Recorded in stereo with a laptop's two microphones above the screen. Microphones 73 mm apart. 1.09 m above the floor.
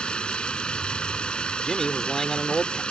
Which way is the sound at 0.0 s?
15° left (ahead or behind).